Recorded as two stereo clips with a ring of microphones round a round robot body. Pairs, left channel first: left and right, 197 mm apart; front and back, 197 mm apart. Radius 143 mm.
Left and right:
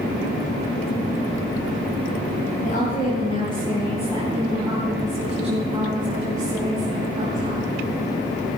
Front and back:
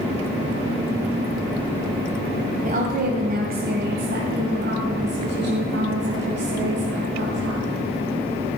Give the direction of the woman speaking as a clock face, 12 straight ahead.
7 o'clock.